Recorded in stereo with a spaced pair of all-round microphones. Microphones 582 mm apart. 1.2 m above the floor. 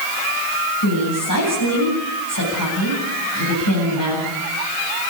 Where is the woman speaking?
35° left (ahead or behind), 9 m.